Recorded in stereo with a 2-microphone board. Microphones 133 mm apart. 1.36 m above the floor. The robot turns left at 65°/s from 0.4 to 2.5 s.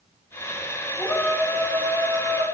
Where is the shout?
30° left, 3 m; by 2.4 s 65° right, 3 m.